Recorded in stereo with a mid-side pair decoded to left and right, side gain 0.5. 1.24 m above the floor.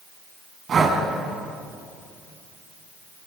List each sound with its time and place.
0.7 s breathing: 50° right, 4.5 m